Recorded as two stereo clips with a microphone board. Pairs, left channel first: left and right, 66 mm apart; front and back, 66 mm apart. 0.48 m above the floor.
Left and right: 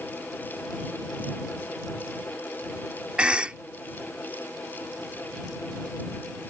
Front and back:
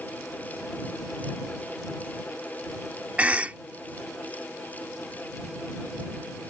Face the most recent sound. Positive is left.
turn(degrees=-140)